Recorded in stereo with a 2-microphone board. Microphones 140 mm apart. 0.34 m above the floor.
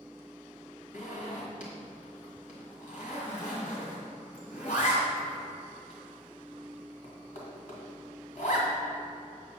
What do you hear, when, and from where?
0.9 s a zipper: 60° left (ahead or behind), 2 m